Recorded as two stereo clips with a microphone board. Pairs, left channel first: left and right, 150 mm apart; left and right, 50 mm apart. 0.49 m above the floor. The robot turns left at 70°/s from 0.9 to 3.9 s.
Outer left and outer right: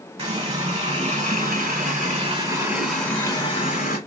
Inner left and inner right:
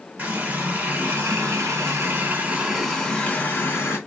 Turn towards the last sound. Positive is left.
turn(degrees=110)